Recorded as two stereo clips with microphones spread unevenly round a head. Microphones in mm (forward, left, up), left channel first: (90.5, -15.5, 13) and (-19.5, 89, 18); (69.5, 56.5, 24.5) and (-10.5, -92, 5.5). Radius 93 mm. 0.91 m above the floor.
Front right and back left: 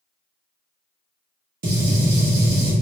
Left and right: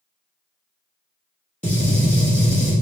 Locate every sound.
1.6 s a gunshot: 145° left, 1.2 m